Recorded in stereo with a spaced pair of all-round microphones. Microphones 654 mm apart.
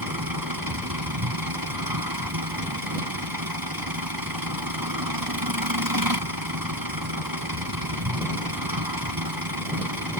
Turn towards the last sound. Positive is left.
turn(degrees=-30)  # may be behind; listen again after turning